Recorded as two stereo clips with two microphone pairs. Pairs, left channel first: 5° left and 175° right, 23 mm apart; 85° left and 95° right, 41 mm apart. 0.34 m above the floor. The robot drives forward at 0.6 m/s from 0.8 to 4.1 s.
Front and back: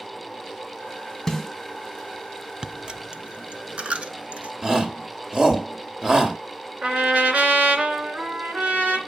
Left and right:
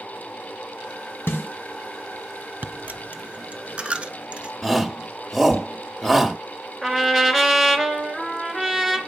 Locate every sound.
1.3 s a snare drum: 75° left, 1.6 m; by 1.5 s 80° left, 1.6 m
2.6 s a dropped coin: 135° right, 0.8 m; by 4.5 s 160° right, 1.5 m
4.6 s a shout: 175° left, 1.6 m
6.8 s a trumpet: 175° left, 3 m